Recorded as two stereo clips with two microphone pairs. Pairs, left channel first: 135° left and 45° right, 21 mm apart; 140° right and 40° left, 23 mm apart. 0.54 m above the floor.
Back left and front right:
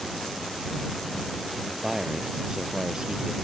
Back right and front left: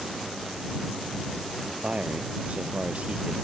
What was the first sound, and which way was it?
A man speaking, 10° left.